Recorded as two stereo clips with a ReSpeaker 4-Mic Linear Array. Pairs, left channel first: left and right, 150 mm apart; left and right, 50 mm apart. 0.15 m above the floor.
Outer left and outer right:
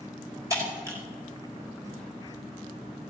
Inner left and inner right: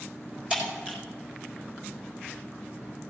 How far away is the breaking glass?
About 4 m.